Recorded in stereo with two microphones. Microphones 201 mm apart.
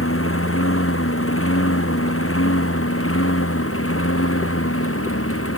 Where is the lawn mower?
80° left; by 5.6 s 85° left.